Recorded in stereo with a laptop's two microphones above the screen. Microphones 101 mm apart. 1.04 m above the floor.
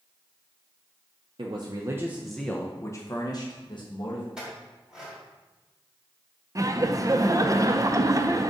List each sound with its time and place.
1.4 s a man speaking: 50° right (ahead or behind), 0.6 m; by 4.3 s 55° left (ahead or behind), 1.3 m
4.4 s a clink: 5° right (ahead or behind), 2.5 m
6.5 s laughter: 30° right (ahead or behind), 0.5 m